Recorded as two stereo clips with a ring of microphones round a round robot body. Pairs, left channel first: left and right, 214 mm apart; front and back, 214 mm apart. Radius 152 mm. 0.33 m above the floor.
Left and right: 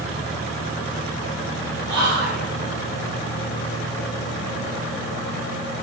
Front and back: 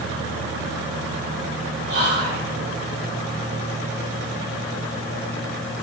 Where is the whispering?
Straight behind, 1.1 m.